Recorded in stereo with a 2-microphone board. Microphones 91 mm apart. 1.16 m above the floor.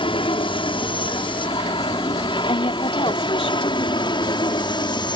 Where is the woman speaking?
80° left.